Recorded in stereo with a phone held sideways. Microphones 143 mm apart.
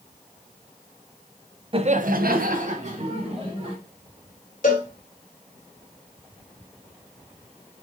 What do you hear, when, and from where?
1.7 s laughter: 40° right (ahead or behind), 0.8 m
4.6 s a cowbell: 70° left (ahead or behind), 1.9 m